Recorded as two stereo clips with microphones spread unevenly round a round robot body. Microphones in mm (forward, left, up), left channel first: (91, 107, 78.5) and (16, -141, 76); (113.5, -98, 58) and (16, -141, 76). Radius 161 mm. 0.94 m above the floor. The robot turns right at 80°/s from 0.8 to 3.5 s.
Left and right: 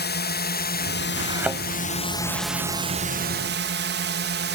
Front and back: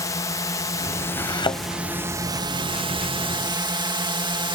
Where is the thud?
45° right; by 1.6 s 10° right.